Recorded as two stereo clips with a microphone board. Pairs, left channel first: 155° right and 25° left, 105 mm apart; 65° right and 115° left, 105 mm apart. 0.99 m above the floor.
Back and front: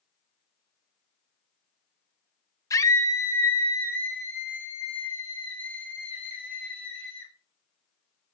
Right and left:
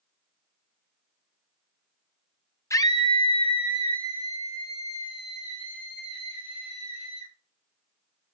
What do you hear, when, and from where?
2.7 s a scream: 115° right, 0.6 m; by 7.3 s 85° right, 5.5 m